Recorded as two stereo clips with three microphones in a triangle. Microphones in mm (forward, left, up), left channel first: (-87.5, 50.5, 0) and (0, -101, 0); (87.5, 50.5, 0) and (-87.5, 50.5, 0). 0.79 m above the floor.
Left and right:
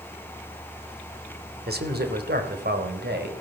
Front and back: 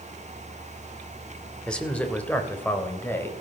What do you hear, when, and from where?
1.7 s a man speaking: 85° right, 2.5 m; by 3.3 s 75° right, 4 m